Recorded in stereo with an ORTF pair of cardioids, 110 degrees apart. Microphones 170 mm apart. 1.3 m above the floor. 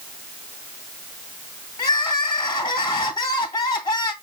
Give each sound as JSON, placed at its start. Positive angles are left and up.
{"t": 1.8, "sound": "crying", "azimuth_deg": 25, "distance_m": 1.3}